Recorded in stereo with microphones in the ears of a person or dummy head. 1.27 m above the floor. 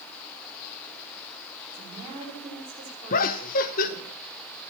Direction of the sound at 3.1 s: 45° left (ahead or behind).